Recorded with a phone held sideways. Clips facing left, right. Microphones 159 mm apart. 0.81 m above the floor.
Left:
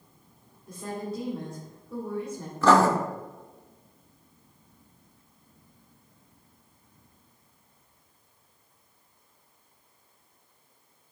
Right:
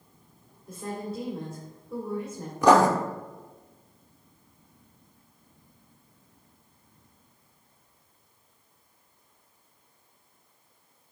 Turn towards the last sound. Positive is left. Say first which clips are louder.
# right 1 dB
turn(degrees=-15)  # may be behind; listen again after turning